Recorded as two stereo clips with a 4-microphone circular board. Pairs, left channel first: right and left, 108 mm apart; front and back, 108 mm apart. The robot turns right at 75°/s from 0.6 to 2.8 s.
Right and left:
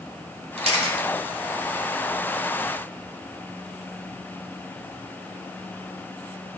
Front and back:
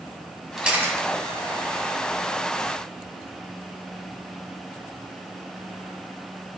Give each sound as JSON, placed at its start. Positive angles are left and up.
{"t": 0.6, "sound": "a camera shutter", "azimuth_deg": 95, "distance_m": 1.7}